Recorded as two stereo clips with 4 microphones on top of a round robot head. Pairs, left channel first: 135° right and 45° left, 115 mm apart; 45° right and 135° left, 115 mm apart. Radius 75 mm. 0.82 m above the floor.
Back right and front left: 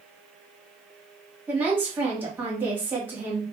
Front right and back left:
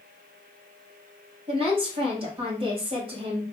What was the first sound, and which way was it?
A woman speaking, 115° left.